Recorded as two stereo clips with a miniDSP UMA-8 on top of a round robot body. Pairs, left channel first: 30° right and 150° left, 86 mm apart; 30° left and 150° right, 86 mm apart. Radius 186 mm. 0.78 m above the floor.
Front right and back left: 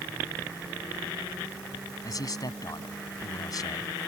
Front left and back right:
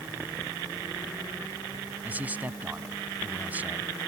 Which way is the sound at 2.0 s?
75° right.